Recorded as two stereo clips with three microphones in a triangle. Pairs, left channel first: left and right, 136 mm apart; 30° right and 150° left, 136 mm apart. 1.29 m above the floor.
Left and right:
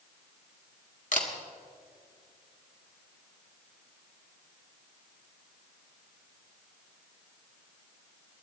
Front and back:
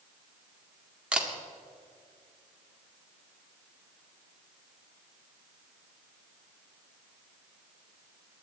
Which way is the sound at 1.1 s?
65° left.